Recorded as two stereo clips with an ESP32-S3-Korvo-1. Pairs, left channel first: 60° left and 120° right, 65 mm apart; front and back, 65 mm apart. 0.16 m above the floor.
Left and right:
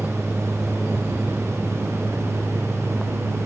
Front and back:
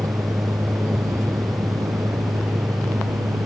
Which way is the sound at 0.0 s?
175° left.